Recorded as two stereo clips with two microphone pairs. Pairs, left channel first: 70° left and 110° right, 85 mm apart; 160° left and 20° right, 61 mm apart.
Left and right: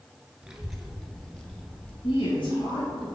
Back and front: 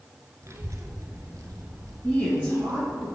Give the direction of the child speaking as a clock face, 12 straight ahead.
1 o'clock.